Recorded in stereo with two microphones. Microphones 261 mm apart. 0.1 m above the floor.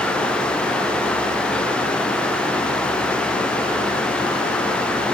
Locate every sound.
Only background noise.